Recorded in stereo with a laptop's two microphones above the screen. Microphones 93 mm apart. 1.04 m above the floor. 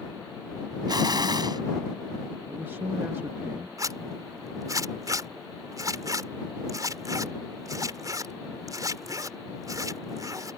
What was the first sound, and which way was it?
An explosion, 50° right (ahead or behind).